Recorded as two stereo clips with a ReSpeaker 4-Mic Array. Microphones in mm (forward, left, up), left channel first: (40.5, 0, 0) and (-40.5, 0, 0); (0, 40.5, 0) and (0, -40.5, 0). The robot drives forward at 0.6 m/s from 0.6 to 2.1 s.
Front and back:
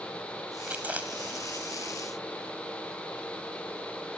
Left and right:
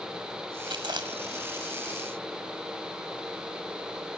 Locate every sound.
0.7 s chewing: 105° right; by 2.6 s 120° right